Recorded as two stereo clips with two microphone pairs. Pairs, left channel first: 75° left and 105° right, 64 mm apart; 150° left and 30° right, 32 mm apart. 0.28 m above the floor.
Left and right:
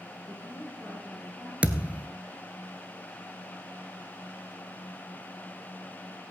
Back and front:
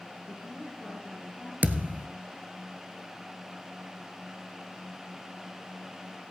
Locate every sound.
0.3 s a woman speaking: 175° right, 4.5 m
1.6 s a thud: 40° right, 0.8 m